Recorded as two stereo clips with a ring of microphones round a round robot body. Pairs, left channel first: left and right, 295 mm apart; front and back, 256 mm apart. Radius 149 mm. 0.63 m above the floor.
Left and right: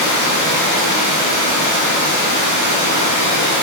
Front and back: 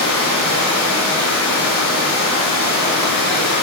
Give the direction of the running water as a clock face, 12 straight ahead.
2 o'clock.